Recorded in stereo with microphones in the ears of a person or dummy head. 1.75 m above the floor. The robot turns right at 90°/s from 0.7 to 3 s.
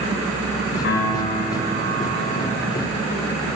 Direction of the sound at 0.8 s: 130° left.